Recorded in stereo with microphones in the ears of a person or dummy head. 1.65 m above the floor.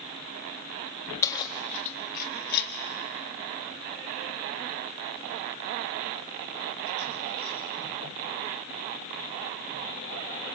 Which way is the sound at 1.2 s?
20° left (ahead or behind).